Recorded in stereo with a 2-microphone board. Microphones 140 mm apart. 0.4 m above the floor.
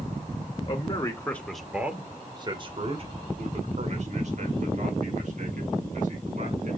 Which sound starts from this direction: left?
A man speaking, at 0.7 s.